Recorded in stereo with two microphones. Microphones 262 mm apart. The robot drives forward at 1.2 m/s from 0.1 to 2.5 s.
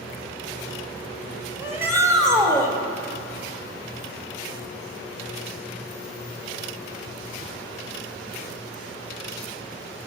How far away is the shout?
About 3 m.